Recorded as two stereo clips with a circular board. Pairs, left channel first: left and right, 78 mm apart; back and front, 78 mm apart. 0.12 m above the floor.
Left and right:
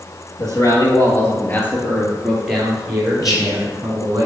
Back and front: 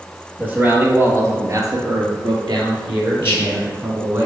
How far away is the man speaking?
About 2.5 m.